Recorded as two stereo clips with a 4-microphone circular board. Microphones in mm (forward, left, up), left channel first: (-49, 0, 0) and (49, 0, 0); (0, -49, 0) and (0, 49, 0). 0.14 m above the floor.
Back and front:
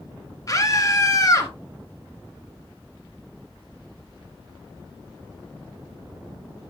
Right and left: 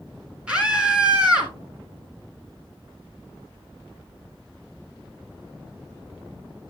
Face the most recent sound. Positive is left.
turn(degrees=165)